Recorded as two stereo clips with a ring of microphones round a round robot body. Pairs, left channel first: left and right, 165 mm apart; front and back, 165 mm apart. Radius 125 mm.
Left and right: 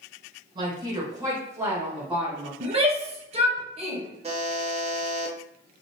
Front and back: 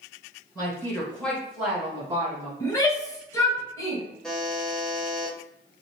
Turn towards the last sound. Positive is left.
turn(degrees=-85)